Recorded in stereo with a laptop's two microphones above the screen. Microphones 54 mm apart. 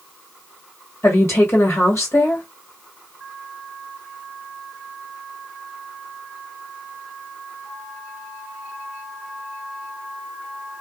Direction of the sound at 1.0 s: 50° left (ahead or behind).